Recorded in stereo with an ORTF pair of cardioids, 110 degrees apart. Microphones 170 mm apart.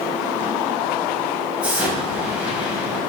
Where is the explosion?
5° right, 4.5 m.